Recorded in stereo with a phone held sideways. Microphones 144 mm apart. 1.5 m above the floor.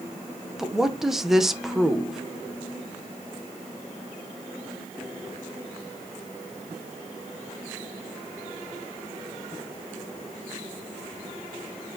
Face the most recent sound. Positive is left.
turn(degrees=0)  # may be behind; listen again after turning